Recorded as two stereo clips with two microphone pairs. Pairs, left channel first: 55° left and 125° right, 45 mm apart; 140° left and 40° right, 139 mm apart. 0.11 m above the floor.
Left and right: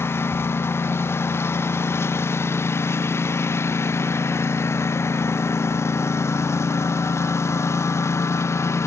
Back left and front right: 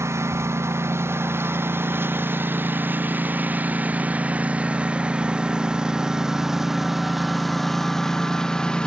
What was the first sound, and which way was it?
A lawn mower, 30° left.